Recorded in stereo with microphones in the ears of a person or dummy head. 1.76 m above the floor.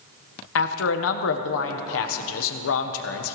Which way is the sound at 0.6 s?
75° left (ahead or behind).